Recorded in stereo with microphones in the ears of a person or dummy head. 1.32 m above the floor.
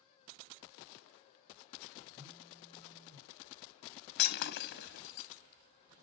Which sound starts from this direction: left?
Breaking glass, at 4.2 s.